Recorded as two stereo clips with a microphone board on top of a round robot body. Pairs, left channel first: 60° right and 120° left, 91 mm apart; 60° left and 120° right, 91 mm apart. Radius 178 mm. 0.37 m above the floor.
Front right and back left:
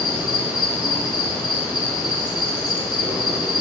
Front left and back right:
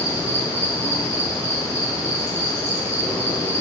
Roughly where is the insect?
Ahead left.